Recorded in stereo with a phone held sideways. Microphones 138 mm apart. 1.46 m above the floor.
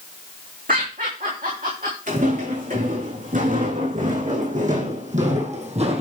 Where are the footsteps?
75° right (ahead or behind), 6 m; by 6.0 s 50° right (ahead or behind), 2 m.